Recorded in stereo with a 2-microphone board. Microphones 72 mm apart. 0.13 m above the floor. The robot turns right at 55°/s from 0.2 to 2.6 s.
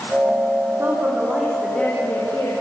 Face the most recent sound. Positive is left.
turn(degrees=60)